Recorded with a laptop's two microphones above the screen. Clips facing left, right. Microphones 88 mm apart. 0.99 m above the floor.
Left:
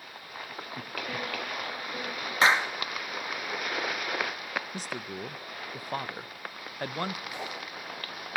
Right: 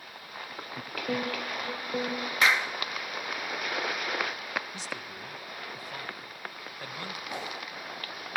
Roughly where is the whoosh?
Right.